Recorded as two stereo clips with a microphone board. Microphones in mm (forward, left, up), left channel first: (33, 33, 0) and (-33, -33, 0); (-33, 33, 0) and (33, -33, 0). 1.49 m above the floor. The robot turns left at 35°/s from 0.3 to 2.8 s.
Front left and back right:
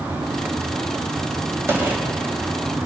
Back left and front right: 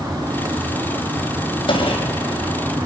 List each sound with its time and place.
1.7 s a gunshot: 160° left, 4.5 m; by 2.9 s 120° left, 4.5 m